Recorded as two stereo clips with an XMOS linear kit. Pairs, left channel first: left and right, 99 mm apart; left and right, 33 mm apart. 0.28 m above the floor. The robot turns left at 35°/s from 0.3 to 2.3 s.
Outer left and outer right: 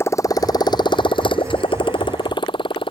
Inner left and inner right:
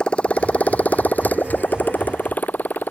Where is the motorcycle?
25° left (ahead or behind); by 2.9 s 60° left (ahead or behind).